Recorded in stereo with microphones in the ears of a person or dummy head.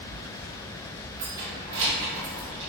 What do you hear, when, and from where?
1.2 s keys jangling: 35° right (ahead or behind), 0.5 m; by 2.7 s 80° right, 1.0 m